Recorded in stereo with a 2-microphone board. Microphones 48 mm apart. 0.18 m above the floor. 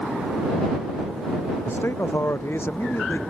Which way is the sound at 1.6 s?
55° left (ahead or behind).